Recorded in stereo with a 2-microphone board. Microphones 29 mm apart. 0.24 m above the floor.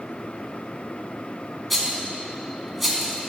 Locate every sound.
1.7 s a rattle: 5° left (ahead or behind), 1.4 m